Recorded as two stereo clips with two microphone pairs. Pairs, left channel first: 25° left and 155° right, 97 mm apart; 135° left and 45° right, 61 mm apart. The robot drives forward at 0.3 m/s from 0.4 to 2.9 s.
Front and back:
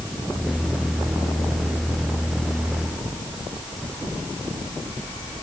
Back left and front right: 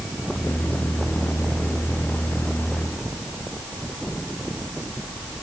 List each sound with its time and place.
Only background noise.